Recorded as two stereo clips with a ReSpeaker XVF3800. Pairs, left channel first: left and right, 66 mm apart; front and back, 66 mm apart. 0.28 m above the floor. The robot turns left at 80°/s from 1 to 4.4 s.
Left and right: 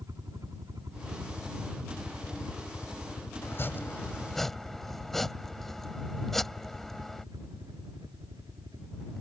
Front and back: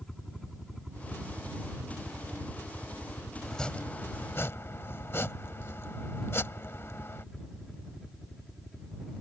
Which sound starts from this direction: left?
Chopping, at 3.4 s.